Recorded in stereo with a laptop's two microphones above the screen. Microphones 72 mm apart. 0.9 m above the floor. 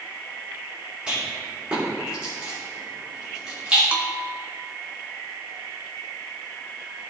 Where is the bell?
20° right (ahead or behind), 0.6 m.